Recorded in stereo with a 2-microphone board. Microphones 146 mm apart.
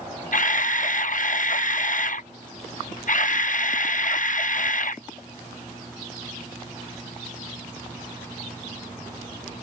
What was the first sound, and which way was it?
A camera shutter, 65° left (ahead or behind).